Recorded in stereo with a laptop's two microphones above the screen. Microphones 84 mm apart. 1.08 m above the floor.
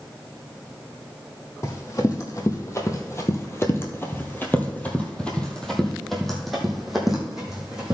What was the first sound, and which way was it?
Running footsteps, 40° left (ahead or behind).